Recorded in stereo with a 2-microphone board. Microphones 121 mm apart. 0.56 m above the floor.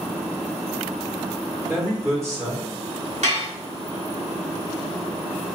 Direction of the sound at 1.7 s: 20° right (ahead or behind).